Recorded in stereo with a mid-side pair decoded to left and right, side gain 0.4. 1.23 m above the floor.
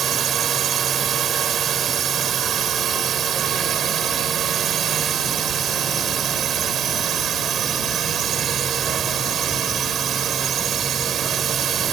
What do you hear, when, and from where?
0.0 s a drone: 60° right